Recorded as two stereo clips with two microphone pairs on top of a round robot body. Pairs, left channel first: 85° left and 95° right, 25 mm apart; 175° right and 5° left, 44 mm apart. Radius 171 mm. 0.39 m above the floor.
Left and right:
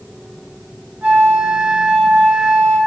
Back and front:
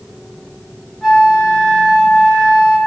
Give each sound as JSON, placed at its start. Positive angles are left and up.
{"t": 1.0, "sound": "a flute", "azimuth_deg": -90, "distance_m": 0.7}